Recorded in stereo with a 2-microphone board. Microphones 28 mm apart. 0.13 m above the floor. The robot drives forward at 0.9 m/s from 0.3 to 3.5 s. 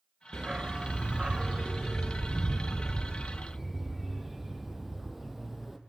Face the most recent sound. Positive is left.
turn(degrees=-10)  # may be behind; listen again after turning